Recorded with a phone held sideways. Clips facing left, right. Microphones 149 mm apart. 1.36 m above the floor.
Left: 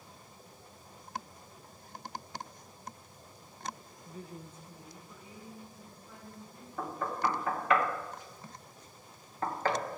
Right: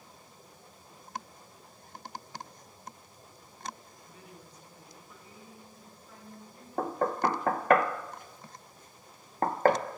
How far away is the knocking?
About 0.8 m.